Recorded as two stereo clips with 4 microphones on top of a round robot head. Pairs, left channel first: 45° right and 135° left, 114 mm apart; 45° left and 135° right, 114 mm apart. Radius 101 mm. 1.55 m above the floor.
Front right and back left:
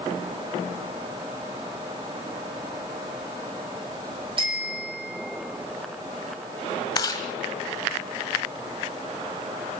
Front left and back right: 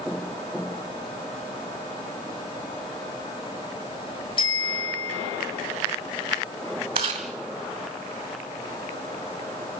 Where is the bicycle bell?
90° left, 6 m.